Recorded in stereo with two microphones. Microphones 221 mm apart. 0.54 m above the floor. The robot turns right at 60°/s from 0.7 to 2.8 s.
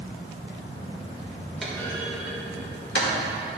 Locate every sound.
1.6 s a clunk: centre (ahead or behind), 1.7 m; by 3.2 s 55° left (ahead or behind), 1.7 m